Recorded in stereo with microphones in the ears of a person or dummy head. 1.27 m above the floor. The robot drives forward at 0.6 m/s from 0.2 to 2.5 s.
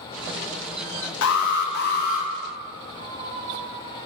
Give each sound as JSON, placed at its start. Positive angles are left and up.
{"t": 1.2, "sound": "an alarm", "side_deg": 85, "distance_m": 0.8}
{"t": 3.0, "sound": "a squeak", "side_deg": -50, "distance_m": 0.8}